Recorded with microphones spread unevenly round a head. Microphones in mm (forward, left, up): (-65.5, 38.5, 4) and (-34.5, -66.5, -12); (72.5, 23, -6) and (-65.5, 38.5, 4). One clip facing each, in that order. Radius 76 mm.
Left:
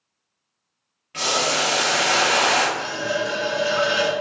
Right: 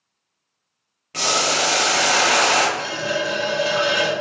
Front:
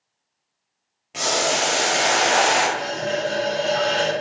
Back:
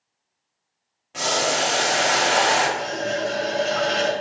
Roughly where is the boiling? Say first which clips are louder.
Right 1 dB, front 1 dB; right.